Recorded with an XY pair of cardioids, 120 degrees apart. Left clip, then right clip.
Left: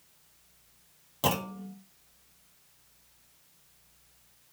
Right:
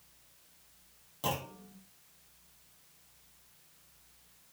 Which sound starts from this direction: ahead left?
A clunk, at 1.2 s.